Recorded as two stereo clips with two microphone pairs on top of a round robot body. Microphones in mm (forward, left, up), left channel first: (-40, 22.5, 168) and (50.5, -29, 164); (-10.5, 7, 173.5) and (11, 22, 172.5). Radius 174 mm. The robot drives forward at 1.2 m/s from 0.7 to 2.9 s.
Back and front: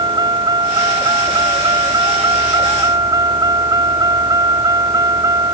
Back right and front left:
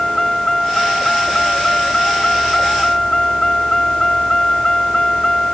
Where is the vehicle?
80° right; by 5.5 s 90° right.